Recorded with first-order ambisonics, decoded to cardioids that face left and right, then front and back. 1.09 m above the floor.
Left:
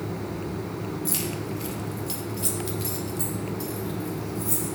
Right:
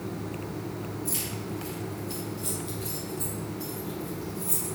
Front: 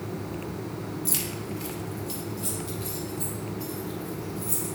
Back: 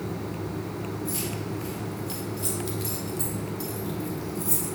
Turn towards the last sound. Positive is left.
turn(degrees=155)